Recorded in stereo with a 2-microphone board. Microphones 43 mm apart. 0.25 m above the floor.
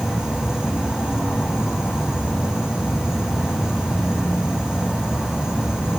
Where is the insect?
65° left (ahead or behind), 0.9 m.